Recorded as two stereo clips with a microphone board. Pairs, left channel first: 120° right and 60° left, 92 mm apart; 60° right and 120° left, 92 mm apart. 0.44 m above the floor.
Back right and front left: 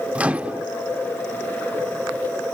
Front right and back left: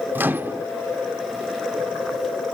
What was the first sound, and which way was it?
A microwave, 110° left.